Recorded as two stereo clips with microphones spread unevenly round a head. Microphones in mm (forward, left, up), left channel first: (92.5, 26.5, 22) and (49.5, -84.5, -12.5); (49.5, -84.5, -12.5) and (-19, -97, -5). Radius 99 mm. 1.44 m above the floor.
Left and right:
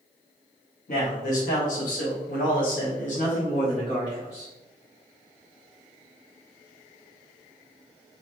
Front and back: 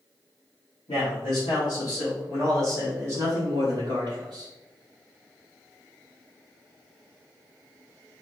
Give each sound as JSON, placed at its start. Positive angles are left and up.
{"t": 0.9, "sound": "a man speaking", "azimuth_deg": 65, "distance_m": 2.0}